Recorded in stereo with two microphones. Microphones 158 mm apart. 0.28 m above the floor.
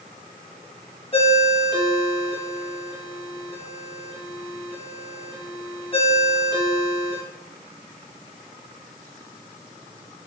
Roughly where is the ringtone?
Left.